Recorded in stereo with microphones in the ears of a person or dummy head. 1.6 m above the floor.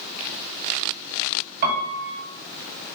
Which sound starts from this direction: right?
A piano, at 1.6 s.